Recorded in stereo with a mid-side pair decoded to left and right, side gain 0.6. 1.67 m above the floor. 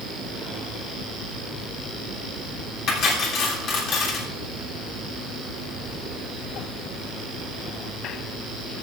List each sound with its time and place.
2.9 s cutlery clinking: 60° left, 3 m